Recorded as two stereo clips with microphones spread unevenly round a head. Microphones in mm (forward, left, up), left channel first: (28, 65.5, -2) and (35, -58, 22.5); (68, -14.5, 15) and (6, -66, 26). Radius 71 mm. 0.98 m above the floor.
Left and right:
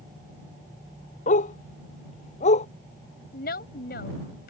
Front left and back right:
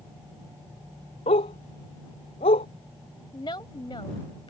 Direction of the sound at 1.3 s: 65° left.